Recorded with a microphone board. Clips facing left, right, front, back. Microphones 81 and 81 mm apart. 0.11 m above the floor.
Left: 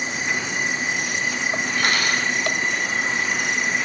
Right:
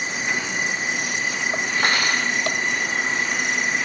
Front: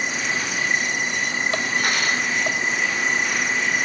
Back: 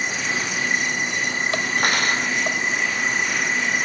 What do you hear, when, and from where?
1.8 s cutlery clinking: 150° right, 3 m